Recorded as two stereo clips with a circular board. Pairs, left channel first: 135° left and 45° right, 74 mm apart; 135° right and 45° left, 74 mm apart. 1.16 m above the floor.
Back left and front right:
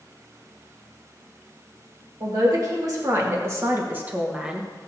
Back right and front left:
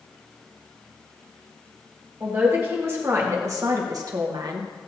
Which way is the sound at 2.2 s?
15° right.